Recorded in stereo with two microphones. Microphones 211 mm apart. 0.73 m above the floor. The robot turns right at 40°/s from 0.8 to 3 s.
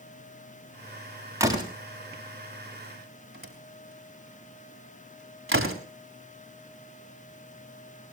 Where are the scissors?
I don't hear scissors.